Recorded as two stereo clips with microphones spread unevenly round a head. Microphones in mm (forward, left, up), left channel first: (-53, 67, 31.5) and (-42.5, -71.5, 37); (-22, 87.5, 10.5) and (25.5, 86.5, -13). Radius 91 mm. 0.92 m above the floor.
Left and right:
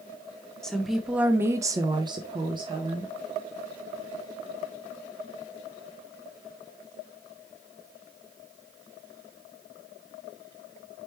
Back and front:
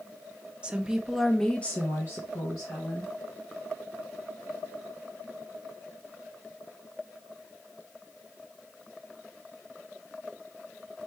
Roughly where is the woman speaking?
Ahead.